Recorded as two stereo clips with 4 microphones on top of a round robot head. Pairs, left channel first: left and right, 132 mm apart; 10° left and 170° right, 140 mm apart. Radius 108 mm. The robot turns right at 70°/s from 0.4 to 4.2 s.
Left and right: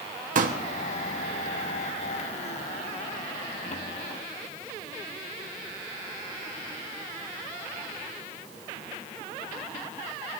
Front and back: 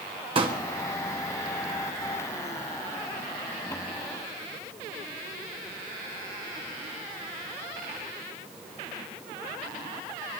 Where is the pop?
115° right, 1.5 m; by 0.6 s 100° right, 1.5 m.